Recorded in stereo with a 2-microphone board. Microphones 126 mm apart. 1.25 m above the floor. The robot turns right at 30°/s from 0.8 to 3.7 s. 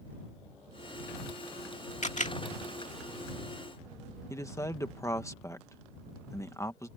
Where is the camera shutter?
70° left (ahead or behind); by 2.4 s 80° left.